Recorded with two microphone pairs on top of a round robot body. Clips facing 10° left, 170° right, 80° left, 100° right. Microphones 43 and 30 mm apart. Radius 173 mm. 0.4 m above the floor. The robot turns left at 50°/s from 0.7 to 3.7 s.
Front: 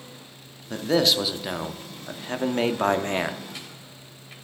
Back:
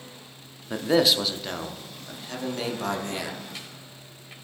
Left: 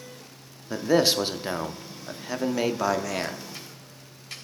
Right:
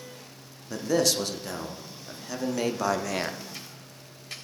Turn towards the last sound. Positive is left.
turn(degrees=-25)